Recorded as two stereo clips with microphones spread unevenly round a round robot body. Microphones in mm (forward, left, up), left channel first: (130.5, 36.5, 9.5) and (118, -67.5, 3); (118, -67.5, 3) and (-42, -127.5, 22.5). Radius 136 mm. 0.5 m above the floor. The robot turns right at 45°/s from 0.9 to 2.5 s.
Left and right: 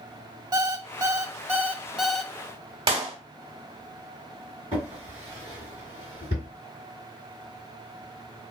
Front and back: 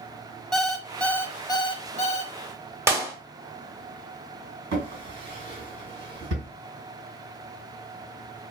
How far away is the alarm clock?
About 0.7 m.